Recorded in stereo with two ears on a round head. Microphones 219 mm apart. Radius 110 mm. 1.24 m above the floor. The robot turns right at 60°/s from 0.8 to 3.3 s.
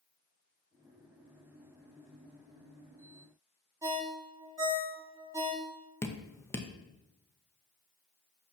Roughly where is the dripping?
Centre.